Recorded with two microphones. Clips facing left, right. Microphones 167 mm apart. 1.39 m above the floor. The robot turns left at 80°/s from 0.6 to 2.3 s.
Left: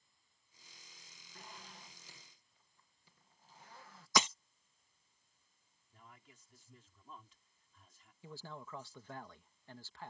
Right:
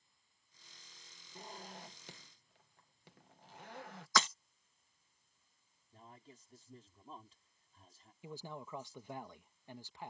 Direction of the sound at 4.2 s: 15° left (ahead or behind).